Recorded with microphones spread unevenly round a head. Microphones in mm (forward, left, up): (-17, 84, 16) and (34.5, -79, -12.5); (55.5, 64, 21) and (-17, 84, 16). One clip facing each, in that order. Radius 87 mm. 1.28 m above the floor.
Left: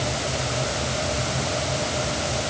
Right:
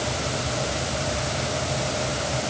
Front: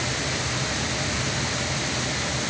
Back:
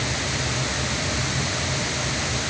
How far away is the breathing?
No breathing in this recording.